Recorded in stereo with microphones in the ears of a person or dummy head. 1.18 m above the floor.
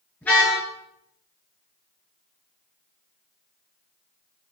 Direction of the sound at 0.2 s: Centre (ahead or behind).